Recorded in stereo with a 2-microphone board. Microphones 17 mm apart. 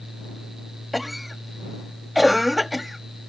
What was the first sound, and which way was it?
A cough, 10° right (ahead or behind).